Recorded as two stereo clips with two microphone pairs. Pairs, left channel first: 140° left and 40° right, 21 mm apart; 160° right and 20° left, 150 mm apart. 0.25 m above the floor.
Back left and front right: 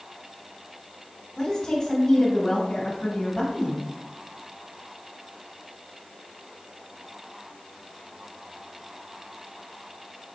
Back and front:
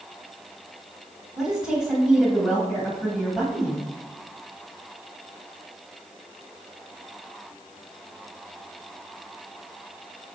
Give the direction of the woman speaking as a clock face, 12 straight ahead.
9 o'clock.